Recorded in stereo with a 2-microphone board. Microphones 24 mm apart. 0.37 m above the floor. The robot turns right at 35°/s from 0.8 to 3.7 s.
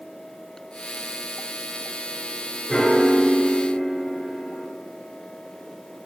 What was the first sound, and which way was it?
A piano, 150° left.